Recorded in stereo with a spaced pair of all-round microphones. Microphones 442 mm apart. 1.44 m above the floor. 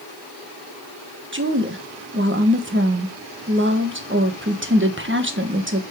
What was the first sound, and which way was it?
A woman speaking, 25° right (ahead or behind).